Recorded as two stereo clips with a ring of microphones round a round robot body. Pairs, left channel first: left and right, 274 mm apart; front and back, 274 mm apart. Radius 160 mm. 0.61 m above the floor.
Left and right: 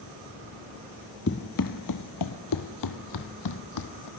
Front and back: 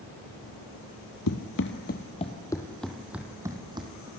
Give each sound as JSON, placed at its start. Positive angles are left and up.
{"t": 1.3, "sound": "running footsteps", "azimuth_deg": 35, "distance_m": 1.1}